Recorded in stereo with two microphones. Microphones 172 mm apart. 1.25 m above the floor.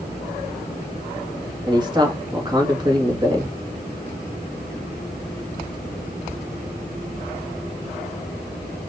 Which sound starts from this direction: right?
A man speaking, at 1.7 s.